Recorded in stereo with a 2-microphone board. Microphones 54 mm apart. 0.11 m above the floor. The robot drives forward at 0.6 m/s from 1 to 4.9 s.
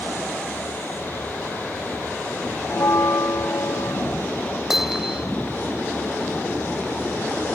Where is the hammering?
5° right (ahead or behind).